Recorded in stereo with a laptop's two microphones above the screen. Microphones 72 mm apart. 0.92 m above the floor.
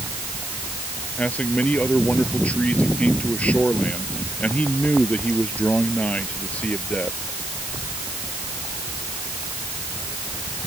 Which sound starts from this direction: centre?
A man speaking, at 1.2 s.